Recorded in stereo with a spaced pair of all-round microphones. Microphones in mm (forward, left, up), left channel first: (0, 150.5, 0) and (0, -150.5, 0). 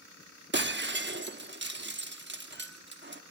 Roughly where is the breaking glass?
Right.